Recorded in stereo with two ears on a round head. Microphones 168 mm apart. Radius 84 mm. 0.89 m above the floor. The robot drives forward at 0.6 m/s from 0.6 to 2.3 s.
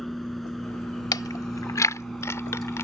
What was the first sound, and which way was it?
A vehicle, centre (ahead or behind).